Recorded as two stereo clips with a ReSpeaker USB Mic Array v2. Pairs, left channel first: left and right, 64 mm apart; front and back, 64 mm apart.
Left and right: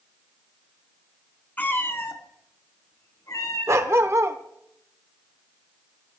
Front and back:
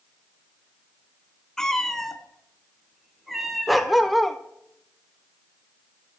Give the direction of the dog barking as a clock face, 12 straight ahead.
3 o'clock.